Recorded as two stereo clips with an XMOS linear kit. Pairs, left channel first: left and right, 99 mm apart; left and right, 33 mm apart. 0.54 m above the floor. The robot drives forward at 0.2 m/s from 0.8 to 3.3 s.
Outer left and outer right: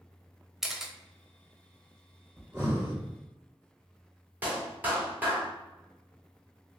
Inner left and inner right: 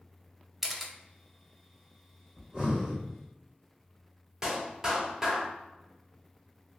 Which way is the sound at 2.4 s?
25° right (ahead or behind).